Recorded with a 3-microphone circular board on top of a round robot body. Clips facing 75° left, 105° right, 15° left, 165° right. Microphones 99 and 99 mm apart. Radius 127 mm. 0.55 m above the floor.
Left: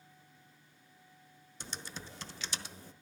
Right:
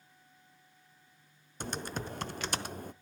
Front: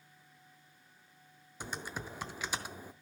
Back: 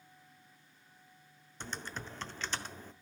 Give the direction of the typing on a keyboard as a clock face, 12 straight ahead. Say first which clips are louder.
Right 9 dB, front 1 dB; 2 o'clock.